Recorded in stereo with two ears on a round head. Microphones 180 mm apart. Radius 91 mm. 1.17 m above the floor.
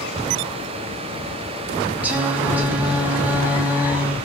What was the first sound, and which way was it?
Singing, 10° right (ahead or behind).